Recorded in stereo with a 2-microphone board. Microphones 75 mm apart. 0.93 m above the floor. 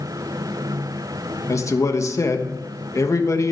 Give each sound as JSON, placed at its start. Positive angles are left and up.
{"t": 1.5, "sound": "a man speaking", "side_deg": 45, "distance_m": 1.2}